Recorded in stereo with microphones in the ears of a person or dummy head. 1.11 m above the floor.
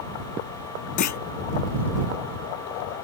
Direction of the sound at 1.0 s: 50° left (ahead or behind).